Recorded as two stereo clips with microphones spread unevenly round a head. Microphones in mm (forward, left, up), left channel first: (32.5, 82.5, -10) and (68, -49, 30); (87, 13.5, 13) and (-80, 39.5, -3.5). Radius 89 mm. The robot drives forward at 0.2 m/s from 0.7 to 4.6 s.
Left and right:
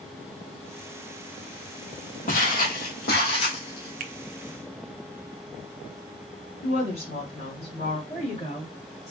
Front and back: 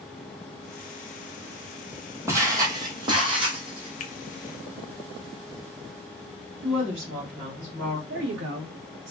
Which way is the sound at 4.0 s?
60° right.